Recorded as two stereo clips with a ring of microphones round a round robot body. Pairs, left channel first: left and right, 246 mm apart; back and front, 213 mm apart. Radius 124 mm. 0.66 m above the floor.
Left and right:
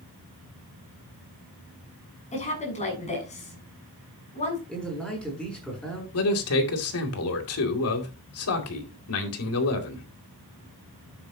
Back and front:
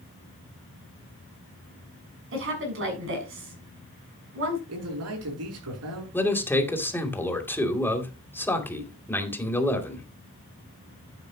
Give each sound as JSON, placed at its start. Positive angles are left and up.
{"t": 2.3, "sound": "a woman speaking", "azimuth_deg": 25, "distance_m": 7.0}
{"t": 4.7, "sound": "a man speaking", "azimuth_deg": 5, "distance_m": 7.5}
{"t": 6.1, "sound": "a man speaking", "azimuth_deg": 100, "distance_m": 2.5}